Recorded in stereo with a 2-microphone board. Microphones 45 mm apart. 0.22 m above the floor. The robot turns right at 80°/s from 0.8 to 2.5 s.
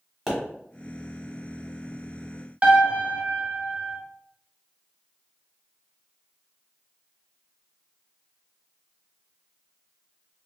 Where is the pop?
Centre (ahead or behind), 1.5 m.